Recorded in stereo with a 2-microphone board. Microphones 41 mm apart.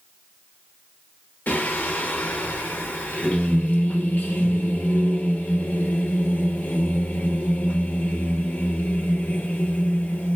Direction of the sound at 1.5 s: 50° left (ahead or behind).